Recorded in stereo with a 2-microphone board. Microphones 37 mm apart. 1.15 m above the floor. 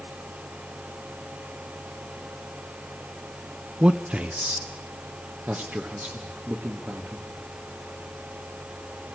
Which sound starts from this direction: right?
A man speaking, at 3.8 s.